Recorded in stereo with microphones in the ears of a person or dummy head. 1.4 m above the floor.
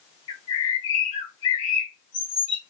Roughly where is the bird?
Left.